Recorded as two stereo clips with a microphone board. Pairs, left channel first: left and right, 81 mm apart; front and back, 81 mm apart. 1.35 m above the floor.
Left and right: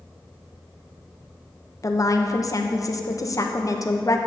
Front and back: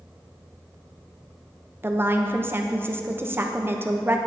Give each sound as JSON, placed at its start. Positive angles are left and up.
{"t": 1.8, "sound": "a woman speaking", "azimuth_deg": 125, "distance_m": 0.7}